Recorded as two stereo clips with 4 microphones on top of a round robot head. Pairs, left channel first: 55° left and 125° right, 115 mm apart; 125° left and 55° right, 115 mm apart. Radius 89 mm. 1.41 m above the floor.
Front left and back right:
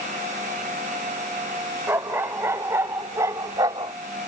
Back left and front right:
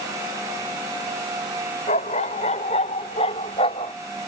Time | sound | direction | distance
1.9 | a dog barking | 160° left | ?